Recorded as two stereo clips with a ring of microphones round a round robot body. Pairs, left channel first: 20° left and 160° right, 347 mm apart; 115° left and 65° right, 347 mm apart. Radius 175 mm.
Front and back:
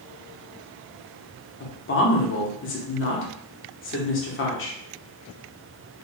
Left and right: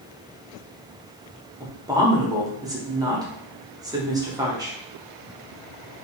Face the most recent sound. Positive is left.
turn(degrees=5)